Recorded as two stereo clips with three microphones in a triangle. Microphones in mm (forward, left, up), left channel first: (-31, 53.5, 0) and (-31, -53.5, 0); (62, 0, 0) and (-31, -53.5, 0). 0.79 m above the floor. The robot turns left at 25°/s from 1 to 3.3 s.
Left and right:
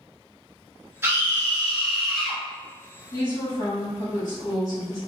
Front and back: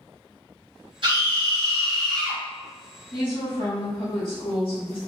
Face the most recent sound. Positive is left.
turn(degrees=50)